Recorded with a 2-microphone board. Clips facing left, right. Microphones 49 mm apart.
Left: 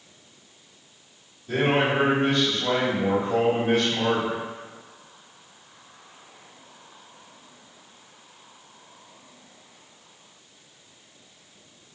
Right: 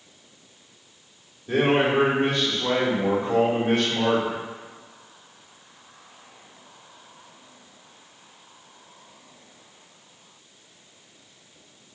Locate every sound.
1.5 s a man speaking: 35° right (ahead or behind), 1.3 m; by 4.4 s 45° right (ahead or behind), 1.4 m